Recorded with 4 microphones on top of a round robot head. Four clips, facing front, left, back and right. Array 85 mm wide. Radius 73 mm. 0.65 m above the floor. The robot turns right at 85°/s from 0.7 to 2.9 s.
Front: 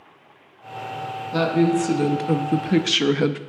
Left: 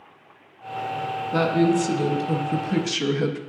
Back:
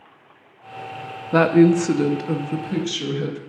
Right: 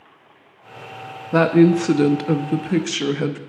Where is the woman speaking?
155° right, 0.6 m; by 3.4 s 20° right, 0.6 m.